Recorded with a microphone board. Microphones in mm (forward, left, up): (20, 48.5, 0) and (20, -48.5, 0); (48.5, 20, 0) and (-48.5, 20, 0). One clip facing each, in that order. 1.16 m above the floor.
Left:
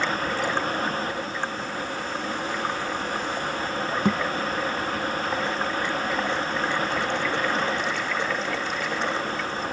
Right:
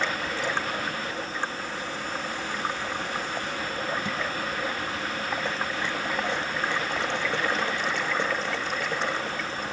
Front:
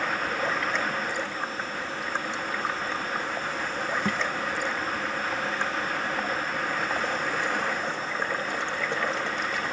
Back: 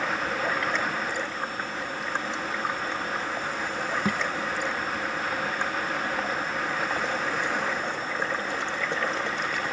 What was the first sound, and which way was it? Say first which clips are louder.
A thud: left 8 dB, back 2 dB; 95° left.